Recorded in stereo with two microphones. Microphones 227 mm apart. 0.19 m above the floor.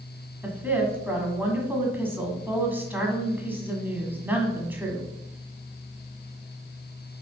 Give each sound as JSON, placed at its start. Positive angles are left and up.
{"t": 0.4, "sound": "a woman speaking", "side_deg": -10, "distance_m": 1.6}